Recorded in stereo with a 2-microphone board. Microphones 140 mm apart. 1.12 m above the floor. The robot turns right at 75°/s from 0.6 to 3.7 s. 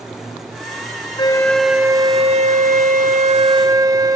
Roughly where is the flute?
Behind left.